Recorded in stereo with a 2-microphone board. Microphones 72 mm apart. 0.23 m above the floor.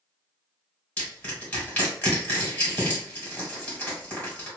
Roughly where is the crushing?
Centre.